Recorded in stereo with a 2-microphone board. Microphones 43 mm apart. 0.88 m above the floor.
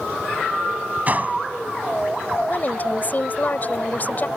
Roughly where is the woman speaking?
Left.